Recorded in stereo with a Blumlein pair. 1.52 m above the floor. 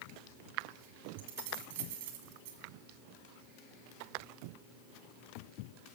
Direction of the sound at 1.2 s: 55° right.